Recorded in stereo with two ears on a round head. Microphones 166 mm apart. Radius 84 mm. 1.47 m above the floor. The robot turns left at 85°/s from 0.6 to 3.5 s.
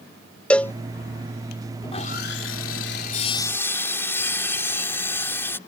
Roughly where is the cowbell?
Centre.